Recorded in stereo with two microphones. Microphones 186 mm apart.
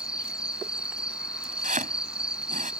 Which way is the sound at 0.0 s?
5° right (ahead or behind).